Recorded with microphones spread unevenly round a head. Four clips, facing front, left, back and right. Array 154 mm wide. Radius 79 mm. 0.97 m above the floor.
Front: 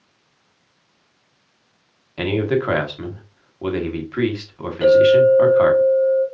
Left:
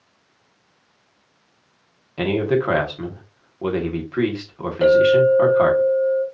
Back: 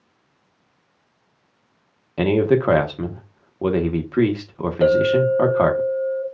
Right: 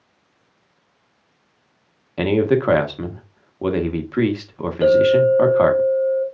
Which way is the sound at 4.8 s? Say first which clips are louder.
Even, front 5 dB; 165° left.